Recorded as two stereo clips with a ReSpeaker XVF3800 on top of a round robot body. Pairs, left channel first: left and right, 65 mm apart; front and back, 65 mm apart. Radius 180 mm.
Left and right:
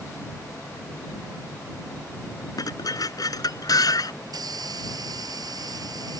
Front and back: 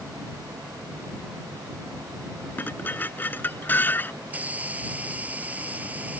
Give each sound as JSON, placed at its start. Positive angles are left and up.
{"t": 2.6, "sound": "dishes clattering", "azimuth_deg": 65}
{"t": 4.2, "sound": "a hiss", "azimuth_deg": -110}